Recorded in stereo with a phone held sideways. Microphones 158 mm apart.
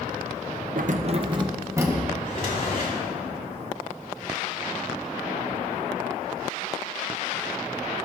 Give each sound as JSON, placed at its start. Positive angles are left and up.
{"t": 0.8, "sound": "keys jangling", "side_deg": -65, "distance_m": 0.6}
{"t": 2.1, "sound": "a drawer", "side_deg": 75, "distance_m": 3.5}